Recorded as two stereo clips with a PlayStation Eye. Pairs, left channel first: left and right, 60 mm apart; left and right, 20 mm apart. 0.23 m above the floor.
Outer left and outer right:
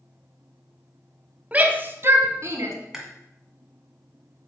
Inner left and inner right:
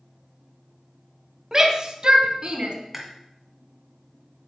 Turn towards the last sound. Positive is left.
turn(degrees=-10)  # may be behind; listen again after turning